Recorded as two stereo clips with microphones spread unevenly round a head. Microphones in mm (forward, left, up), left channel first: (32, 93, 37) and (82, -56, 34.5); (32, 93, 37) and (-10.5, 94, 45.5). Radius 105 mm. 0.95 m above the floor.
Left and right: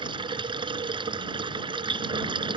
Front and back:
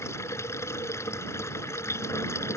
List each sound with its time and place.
0.0 s running water: 10° right